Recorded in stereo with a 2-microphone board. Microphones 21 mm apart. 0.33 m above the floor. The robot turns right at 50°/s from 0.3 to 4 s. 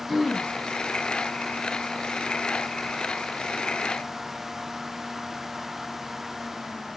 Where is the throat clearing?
20° left (ahead or behind), 1.3 m.